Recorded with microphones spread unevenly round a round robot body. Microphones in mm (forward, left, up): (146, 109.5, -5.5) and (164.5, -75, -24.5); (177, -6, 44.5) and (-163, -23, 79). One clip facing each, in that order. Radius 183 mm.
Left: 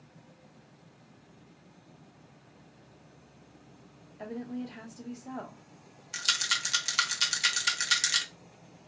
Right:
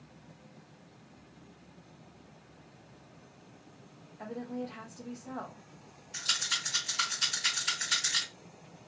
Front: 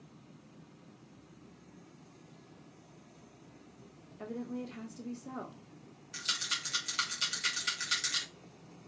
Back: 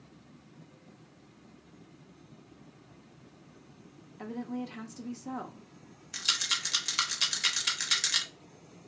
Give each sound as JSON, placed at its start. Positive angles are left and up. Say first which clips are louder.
{"t": 4.2, "sound": "a woman speaking", "louder": "left 1 dB, back 3 dB", "azimuth_deg": 100, "distance_m": 0.7}
{"t": 6.1, "sound": "a rattle", "louder": "left 4 dB, back 2 dB", "azimuth_deg": 105, "distance_m": 0.6}